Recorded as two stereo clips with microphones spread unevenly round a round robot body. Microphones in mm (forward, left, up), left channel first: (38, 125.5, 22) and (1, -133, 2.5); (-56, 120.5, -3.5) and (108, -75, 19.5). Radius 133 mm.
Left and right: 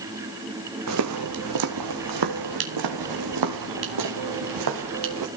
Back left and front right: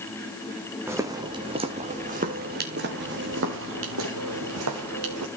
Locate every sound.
0.9 s footsteps: 130° right, 1.8 m; by 5.3 s 85° right, 3 m